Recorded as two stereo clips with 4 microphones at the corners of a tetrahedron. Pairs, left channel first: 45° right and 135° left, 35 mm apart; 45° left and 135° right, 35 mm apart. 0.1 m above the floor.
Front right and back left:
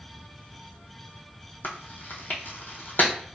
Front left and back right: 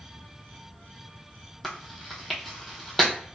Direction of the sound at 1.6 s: 45° right.